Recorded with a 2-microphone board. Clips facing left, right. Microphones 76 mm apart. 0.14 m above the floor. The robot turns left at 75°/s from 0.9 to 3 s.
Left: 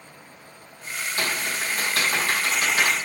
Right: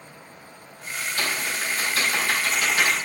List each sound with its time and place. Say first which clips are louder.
1.2 s typing on a keyboard: left 1 dB; 35° left (ahead or behind), 5.5 m; by 3.0 s 10° left (ahead or behind), 5.5 m